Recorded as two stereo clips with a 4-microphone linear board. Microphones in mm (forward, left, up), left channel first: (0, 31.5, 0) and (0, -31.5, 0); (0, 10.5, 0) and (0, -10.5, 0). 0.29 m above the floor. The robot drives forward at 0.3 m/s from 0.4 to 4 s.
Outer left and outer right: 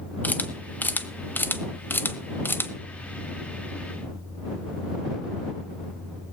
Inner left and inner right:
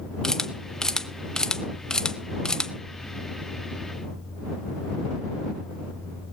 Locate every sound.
0.2 s a camera shutter: 30° left (ahead or behind), 1.1 m; by 2.7 s 35° left (ahead or behind), 0.9 m